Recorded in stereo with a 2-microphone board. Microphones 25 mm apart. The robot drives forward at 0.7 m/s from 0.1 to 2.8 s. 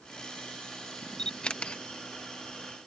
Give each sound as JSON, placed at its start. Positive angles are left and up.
{"t": 1.2, "sound": "a camera shutter", "side_deg": 35}